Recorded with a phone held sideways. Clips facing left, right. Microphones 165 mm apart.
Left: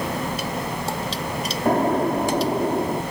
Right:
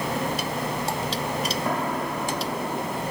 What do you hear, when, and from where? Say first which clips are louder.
1.6 s an explosion: left 8 dB; 45° left (ahead or behind)